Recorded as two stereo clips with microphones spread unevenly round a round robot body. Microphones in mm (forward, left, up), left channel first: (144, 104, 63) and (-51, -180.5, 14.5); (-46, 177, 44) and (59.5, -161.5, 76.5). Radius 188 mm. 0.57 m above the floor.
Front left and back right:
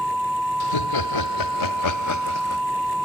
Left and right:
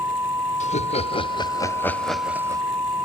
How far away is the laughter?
About 2.0 m.